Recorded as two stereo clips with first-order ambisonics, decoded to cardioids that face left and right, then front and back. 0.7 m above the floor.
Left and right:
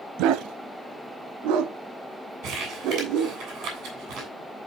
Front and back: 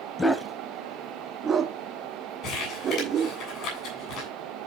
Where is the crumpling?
45° right, 7.5 m.